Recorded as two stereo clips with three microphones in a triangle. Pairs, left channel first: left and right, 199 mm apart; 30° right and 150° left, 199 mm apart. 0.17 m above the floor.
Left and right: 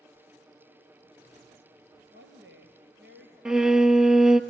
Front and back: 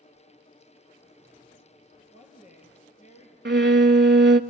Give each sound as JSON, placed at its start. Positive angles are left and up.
{"t": 2.1, "sound": "a woman speaking", "azimuth_deg": -80, "distance_m": 3.0}
{"t": 3.5, "sound": "a violin", "azimuth_deg": -175, "distance_m": 0.5}